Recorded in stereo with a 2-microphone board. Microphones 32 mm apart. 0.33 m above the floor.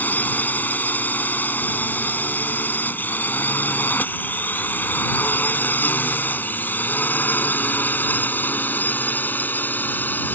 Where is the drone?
60° left (ahead or behind); by 10.4 s 65° left (ahead or behind).